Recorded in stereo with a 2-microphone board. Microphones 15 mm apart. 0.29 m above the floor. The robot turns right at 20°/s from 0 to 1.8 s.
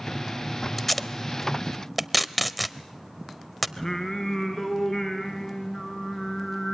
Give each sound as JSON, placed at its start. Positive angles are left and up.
{"t": 0.8, "sound": "tape being pulled", "side_deg": 5, "distance_m": 0.8}
{"t": 3.8, "sound": "singing", "side_deg": 25, "distance_m": 3.0}